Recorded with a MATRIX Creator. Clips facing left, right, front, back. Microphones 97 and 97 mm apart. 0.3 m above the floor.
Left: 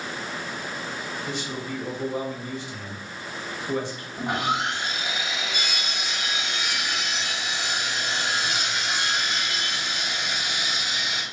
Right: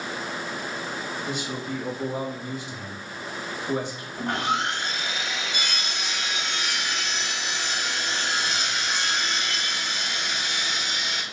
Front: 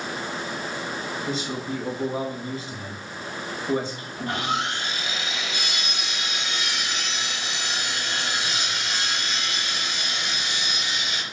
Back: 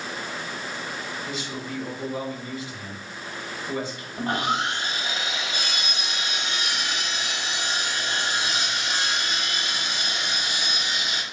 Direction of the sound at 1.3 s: 25° right.